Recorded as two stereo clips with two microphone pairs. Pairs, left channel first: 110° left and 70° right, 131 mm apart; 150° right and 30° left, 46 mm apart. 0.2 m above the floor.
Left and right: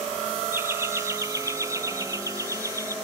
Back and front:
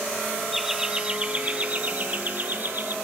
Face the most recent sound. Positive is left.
turn(degrees=-10)